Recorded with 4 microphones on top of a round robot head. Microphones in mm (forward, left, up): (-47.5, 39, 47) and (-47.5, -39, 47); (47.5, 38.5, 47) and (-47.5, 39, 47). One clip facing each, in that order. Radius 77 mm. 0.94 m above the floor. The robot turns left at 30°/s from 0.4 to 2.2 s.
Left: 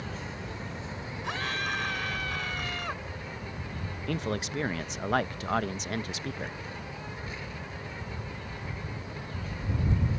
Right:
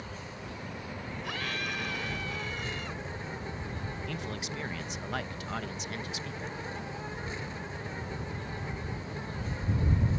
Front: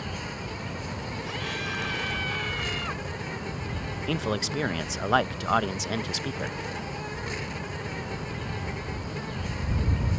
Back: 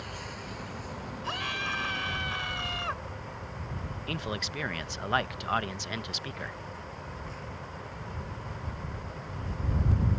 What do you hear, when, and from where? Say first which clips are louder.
0.0 s an insect: left 4 dB, front 5 dB; 35° left; by 10.2 s 20° right
1.2 s a scream: left 4 dB, back 3 dB; 150° left; by 3.0 s 125° left
4.1 s a man speaking: left 10 dB, front 7 dB; 45° left